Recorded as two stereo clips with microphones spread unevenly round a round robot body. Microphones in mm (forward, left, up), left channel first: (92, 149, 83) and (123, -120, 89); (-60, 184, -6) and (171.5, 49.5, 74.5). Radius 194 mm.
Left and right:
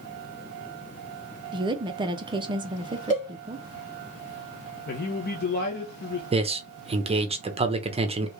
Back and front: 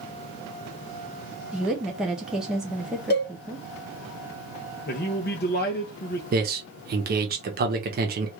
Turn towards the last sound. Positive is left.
turn(degrees=-70)